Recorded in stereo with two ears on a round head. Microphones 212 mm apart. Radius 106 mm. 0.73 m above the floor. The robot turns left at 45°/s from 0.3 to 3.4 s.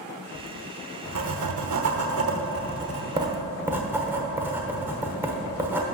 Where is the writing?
35° right (ahead or behind), 1.0 m; by 5.8 s 10° right (ahead or behind), 1.0 m.